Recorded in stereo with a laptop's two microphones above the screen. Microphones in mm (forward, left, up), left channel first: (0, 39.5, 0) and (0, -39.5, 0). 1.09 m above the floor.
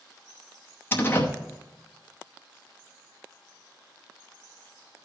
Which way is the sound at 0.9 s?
25° left (ahead or behind).